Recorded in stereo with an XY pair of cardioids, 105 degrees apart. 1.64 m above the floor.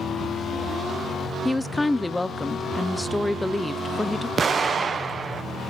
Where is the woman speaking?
10° left, 0.6 m.